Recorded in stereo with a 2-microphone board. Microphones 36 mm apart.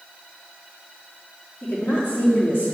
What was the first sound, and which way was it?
A woman speaking, 70° left (ahead or behind).